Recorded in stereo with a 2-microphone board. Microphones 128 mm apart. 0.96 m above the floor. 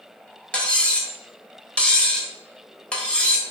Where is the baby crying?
I don't hear a baby crying.